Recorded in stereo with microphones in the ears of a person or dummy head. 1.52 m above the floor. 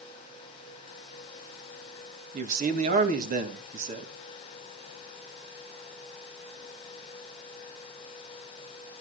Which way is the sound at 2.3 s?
45° right (ahead or behind).